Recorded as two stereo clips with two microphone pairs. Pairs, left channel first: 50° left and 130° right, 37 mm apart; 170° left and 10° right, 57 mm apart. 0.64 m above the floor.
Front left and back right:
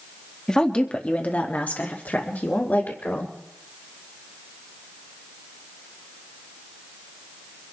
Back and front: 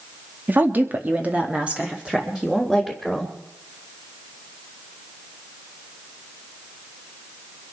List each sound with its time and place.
0.5 s a woman speaking: 5° right, 1.3 m; by 3.3 s 70° left, 2.5 m